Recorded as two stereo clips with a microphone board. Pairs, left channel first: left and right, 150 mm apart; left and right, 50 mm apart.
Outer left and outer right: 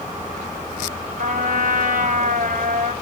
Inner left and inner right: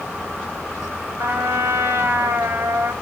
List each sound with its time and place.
1.2 s a trumpet: 65° right (ahead or behind), 3.5 m